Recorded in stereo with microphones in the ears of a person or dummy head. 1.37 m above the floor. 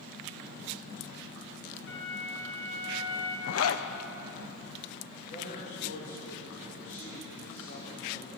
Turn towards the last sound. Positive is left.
turn(degrees=50)  # may be behind; listen again after turning